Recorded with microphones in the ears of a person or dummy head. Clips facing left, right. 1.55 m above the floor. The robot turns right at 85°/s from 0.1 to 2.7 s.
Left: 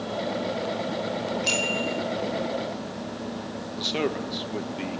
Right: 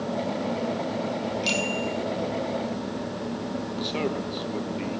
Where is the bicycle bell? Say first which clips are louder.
Even; 45° right, 3 m; by 2.0 s 5° left, 3 m.